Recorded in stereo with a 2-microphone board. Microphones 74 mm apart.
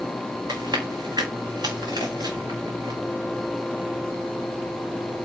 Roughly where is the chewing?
Right.